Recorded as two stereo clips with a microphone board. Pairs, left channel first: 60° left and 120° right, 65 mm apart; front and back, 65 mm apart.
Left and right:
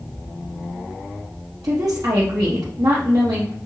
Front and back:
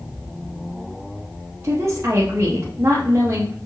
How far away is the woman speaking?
About 0.6 m.